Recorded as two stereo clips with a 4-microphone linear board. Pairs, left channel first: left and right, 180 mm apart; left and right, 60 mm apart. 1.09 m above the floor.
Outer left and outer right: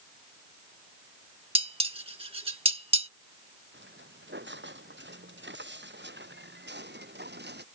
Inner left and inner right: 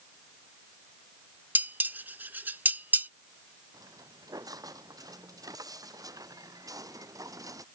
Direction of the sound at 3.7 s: 85° right.